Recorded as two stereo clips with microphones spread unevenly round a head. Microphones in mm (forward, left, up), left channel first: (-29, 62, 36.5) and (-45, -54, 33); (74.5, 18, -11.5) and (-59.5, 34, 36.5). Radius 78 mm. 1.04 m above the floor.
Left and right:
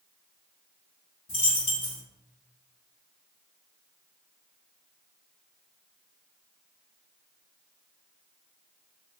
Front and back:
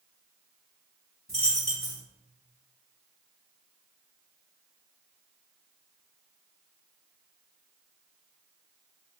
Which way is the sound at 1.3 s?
85° left.